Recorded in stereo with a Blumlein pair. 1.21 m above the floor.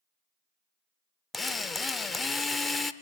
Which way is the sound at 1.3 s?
15° left.